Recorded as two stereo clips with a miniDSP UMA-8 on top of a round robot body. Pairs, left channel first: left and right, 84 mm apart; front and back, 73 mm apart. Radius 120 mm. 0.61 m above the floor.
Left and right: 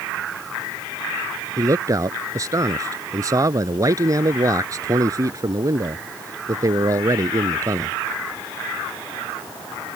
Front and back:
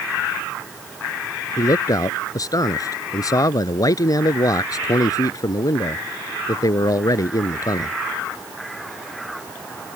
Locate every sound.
1.6 s a man speaking: 40° right